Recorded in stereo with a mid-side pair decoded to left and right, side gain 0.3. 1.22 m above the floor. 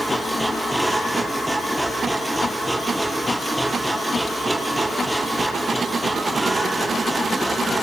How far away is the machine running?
About 8 m.